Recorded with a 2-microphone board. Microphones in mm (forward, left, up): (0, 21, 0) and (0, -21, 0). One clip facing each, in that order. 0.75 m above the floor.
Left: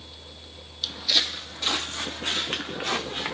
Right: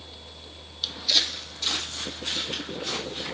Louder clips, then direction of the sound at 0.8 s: Left 1 dB; 5° right (ahead or behind).